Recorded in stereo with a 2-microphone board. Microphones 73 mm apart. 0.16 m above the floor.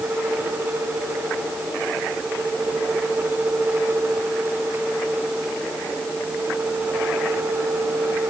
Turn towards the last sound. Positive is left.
No sound to turn to.